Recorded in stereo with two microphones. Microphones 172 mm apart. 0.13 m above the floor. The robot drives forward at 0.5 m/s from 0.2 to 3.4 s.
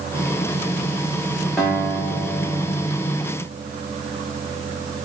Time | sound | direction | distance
1.6 | a guitar | centre (ahead or behind) | 3.5 m